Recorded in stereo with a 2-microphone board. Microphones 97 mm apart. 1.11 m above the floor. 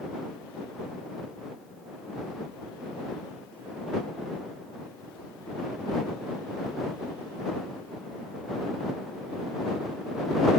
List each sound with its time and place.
Only background noise.